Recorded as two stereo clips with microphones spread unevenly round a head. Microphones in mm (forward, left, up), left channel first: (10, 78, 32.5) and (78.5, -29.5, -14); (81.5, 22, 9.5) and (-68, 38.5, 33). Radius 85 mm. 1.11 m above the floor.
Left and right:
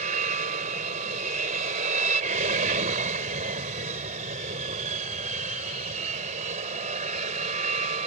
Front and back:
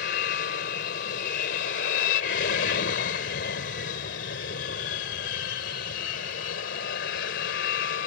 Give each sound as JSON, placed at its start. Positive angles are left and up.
{"t": 0.0, "sound": "an aircraft", "azimuth_deg": -40}